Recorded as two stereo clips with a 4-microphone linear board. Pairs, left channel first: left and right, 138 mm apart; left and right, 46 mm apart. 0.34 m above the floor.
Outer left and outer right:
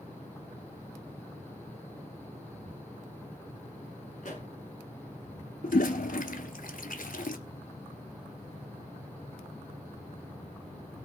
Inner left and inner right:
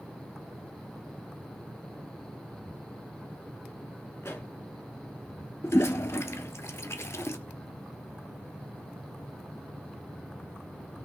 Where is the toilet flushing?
80° left, 1.1 m.